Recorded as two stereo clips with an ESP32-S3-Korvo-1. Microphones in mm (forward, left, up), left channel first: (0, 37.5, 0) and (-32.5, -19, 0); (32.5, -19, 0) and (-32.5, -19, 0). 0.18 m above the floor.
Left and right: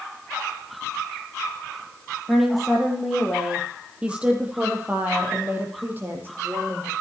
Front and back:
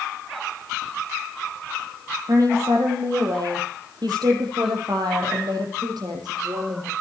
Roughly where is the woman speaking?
Behind left.